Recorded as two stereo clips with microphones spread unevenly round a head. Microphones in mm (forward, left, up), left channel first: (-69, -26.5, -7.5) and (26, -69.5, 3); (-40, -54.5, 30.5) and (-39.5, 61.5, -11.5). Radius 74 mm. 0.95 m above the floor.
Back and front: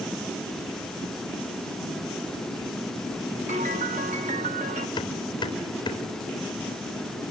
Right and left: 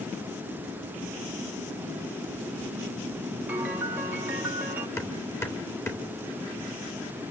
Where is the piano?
15° left, 1.6 m.